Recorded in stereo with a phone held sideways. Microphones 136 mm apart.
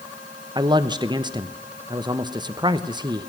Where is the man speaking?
35° right (ahead or behind), 1.0 m.